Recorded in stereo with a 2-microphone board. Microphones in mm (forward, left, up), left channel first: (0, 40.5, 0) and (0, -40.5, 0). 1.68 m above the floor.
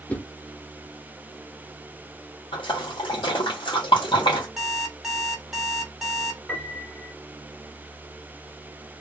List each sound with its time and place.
0.1 s a whoosh: 15° left (ahead or behind), 0.6 m
2.5 s a splash: 75° left (ahead or behind), 1.3 m
4.6 s an alarm clock: 5° right (ahead or behind), 1.1 m
6.5 s a piano: 20° left (ahead or behind), 1.9 m